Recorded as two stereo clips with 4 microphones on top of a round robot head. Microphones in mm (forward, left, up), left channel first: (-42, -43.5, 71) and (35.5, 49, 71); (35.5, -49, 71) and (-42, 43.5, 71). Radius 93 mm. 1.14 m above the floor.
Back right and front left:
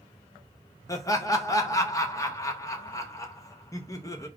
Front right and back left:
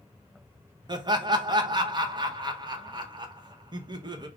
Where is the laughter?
175° left, 0.9 m.